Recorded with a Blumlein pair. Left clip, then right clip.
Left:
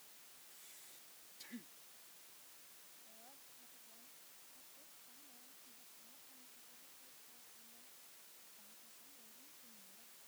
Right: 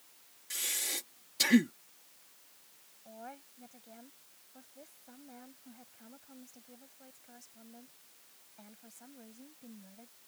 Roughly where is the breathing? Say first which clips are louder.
Right 29 dB; ahead right.